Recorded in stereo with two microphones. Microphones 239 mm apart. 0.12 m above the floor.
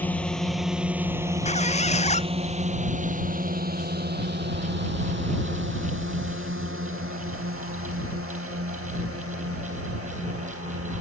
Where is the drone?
5° left (ahead or behind); by 11.0 s 70° right (ahead or behind).